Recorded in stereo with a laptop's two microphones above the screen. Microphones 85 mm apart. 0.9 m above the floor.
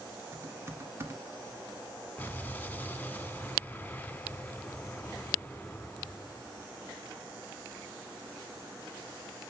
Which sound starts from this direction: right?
Typing on a keyboard, at 0.3 s.